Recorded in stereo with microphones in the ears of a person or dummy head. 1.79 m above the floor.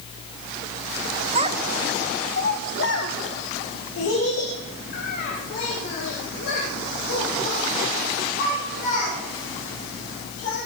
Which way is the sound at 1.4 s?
35° right (ahead or behind).